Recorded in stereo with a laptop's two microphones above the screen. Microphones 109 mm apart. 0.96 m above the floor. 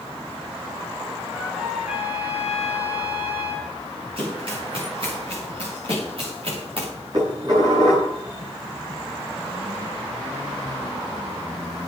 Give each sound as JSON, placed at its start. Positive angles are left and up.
{"t": 1.3, "sound": "a trumpet", "side_deg": -10, "distance_m": 6.5}
{"t": 4.2, "sound": "running footsteps", "side_deg": -55, "distance_m": 9.0}
{"t": 7.1, "sound": "dishes clattering", "side_deg": -40, "distance_m": 8.0}